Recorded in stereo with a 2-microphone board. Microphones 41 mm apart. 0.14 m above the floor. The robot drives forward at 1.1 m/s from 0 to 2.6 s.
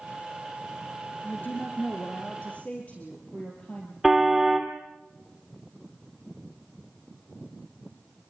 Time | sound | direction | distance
1.2 | a woman speaking | 50° left (ahead or behind) | 2.5 m
4.0 | a car horn | 5° right (ahead or behind) | 2 m